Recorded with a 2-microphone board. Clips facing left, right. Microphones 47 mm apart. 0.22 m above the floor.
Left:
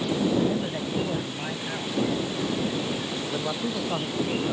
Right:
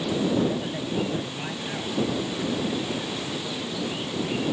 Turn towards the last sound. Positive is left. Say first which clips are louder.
# left 3 dB
turn(degrees=60)  # may be behind; listen again after turning